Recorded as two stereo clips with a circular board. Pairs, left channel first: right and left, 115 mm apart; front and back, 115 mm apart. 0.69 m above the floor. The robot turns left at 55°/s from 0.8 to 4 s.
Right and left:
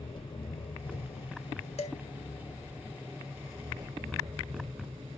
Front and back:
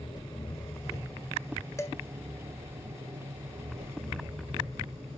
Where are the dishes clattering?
65° right, 1.7 m; by 2.0 s 75° right, 1.7 m.